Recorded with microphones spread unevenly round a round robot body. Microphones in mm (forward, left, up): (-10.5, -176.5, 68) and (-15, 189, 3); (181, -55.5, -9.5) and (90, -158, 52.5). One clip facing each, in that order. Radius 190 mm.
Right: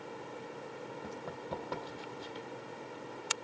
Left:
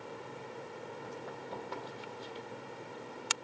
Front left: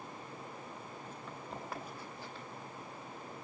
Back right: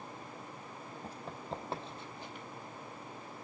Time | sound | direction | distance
1.0 | running footsteps | 105° right | 2.5 m